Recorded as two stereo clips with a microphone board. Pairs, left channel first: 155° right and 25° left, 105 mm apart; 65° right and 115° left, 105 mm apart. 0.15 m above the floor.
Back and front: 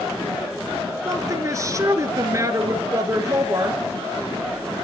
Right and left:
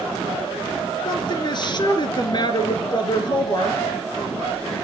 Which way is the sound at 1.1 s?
30° right.